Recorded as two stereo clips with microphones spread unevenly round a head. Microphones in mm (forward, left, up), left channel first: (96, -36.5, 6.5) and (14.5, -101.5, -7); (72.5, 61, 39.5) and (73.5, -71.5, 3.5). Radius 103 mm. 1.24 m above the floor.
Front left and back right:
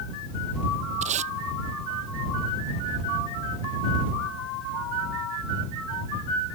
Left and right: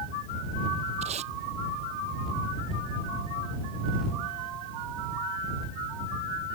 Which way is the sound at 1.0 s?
150° right.